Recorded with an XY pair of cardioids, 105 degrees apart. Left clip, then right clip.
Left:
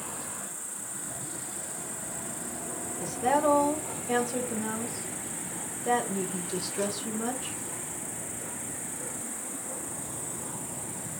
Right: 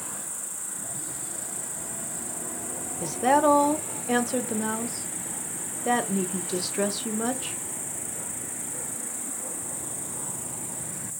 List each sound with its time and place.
0.0 s an insect: 35° right, 0.9 m
3.0 s a woman speaking: 40° right, 0.6 m